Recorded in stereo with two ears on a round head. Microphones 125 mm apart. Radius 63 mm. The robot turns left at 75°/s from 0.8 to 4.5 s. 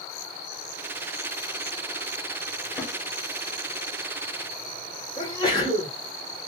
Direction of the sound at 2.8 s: 10° left (ahead or behind).